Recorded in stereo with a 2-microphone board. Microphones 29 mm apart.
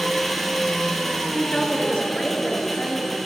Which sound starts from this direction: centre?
An engine running, at 0.0 s.